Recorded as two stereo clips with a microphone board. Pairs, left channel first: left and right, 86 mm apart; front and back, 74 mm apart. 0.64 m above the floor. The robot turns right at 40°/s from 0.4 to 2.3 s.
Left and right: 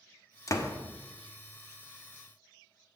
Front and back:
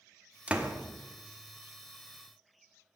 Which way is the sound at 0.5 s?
115° left.